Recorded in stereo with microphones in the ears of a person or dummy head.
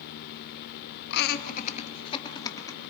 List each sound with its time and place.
1.1 s laughter: 75° left (ahead or behind), 1.1 m; by 2.8 s 25° left (ahead or behind), 2.5 m